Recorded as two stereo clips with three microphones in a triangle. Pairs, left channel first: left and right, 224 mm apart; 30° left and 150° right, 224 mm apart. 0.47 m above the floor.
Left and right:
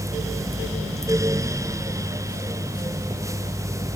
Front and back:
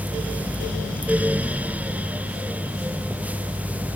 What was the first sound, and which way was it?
Only background noise.